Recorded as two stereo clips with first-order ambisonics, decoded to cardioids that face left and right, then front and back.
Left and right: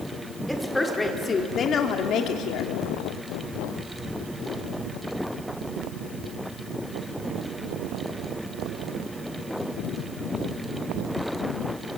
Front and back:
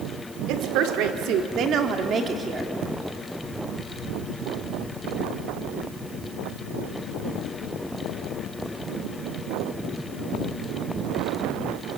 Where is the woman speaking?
Straight behind, 2.5 m; by 2.7 s 100° left, 1.9 m.